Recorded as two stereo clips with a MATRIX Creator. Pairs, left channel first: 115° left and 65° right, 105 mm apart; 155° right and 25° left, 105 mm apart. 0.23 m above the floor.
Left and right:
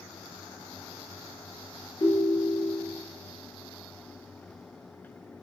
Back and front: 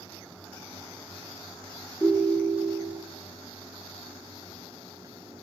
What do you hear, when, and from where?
2.0 s a ringtone: 130° left, 2.5 m